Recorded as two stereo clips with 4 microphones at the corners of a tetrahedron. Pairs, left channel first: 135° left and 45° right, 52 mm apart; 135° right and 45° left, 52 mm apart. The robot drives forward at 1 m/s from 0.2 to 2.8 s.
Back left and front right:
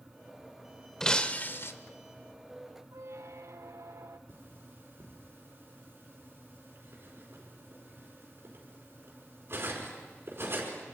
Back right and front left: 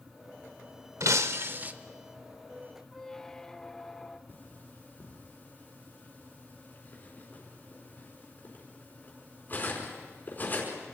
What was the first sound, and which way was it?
Breaking glass, 55° left.